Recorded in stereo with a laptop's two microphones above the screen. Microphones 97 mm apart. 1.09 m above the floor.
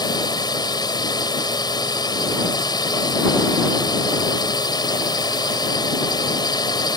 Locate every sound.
0.0 s a drone: 45° left (ahead or behind)